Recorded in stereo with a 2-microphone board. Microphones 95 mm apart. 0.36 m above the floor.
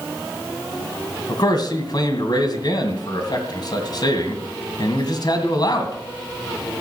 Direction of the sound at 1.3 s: 55° left (ahead or behind).